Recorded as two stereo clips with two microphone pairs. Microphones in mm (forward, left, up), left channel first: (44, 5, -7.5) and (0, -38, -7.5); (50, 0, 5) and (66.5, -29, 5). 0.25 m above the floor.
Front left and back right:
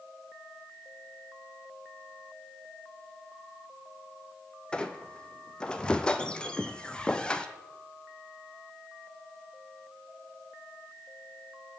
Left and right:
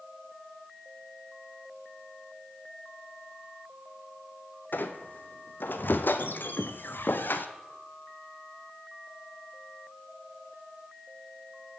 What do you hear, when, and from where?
4.7 s a squeak: 120° left, 0.7 m